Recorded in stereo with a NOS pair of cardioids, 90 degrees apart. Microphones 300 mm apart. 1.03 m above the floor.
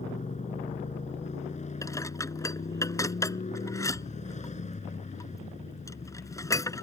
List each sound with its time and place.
0.0 s a motorcycle: 25° left
1.8 s dishes clattering: 10° left